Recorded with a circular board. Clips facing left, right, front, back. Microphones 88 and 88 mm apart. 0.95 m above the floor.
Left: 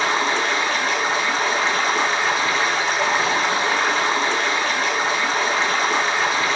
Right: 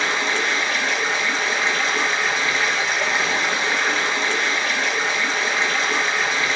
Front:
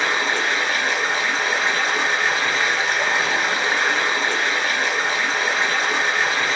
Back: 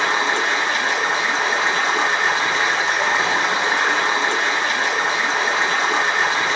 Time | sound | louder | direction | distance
0.0 | running water | left 2 dB, back 2 dB | 120° left | 1.4 m